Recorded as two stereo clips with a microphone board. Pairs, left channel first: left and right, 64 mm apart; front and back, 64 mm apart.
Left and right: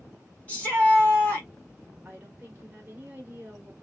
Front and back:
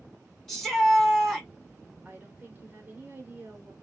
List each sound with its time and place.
0.5 s a shout: 80° left, 1.4 m
2.0 s a woman speaking: 130° right, 1.2 m